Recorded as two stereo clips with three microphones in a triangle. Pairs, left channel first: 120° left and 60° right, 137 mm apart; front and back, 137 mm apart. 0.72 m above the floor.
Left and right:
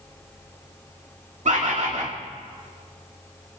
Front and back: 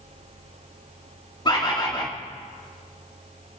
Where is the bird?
50° right, 2.0 m.